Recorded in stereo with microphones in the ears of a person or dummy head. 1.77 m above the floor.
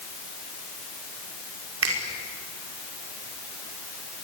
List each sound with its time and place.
1.8 s a finger snap: 85° right, 5 m